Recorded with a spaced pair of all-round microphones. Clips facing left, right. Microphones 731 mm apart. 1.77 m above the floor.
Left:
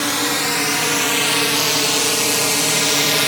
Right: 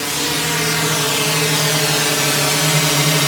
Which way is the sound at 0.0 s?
55° right (ahead or behind).